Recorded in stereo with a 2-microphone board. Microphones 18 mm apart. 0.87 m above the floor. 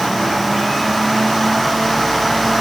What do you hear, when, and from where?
Only background noise.